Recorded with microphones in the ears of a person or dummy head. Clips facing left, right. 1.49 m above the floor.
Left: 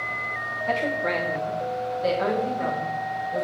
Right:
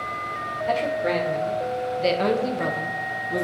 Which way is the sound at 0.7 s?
5° right (ahead or behind).